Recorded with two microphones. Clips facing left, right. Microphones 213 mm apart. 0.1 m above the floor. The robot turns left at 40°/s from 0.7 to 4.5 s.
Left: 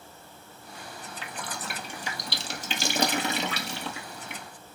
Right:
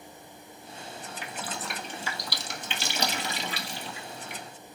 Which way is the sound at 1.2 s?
15° right (ahead or behind).